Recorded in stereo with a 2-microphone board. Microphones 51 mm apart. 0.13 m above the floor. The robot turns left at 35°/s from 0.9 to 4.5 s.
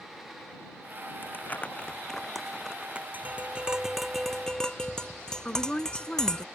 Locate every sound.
1.2 s crumpling: 40° left (ahead or behind); by 3.0 s 20° right (ahead or behind)
3.1 s tapping: 145° right; by 6.5 s 170° left
5.5 s a woman speaking: 20° left (ahead or behind)